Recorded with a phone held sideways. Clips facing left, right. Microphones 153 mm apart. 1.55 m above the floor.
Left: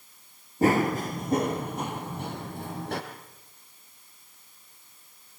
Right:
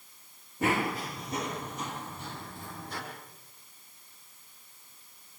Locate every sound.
0.6 s running footsteps: 35° left (ahead or behind), 1.9 m; by 3.0 s 65° left (ahead or behind), 4 m